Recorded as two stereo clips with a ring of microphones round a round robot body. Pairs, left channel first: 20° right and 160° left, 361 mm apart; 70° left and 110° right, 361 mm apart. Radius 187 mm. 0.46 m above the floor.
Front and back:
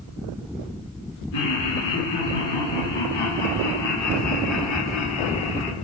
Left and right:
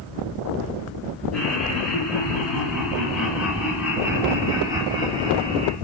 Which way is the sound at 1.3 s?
20° right.